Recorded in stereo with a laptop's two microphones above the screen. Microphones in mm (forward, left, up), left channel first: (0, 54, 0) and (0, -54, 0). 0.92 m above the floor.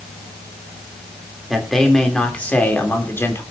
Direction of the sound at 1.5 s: Centre (ahead or behind).